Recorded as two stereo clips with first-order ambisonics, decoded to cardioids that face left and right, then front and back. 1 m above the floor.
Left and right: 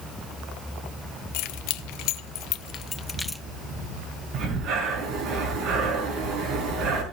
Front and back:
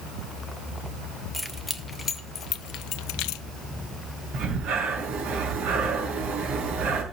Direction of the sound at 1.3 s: 90° left.